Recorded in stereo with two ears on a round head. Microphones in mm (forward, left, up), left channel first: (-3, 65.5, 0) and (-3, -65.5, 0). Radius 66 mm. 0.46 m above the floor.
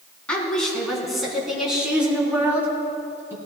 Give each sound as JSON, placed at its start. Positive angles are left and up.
{"t": 0.3, "sound": "a woman speaking", "side_deg": 5, "distance_m": 4.0}